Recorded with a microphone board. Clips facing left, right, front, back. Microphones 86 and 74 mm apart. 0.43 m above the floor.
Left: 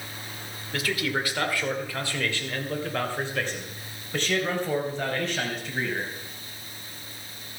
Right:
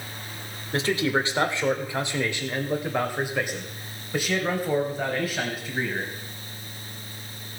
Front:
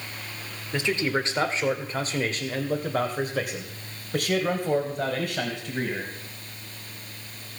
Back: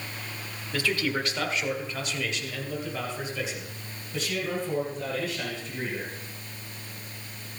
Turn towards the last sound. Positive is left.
turn(degrees=-5)